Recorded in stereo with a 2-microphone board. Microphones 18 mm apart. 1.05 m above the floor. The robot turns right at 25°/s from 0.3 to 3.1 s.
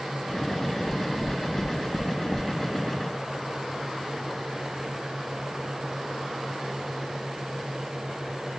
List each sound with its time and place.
0.8 s knocking: 35° right (ahead or behind), 0.5 m